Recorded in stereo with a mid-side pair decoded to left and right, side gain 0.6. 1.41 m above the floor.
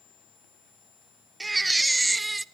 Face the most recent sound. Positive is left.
turn(degrees=-10)